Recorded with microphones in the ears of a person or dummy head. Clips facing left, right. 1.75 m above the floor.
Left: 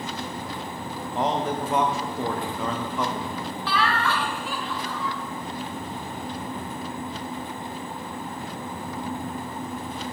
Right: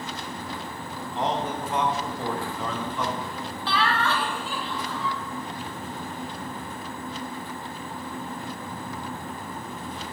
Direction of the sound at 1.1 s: 45° left (ahead or behind).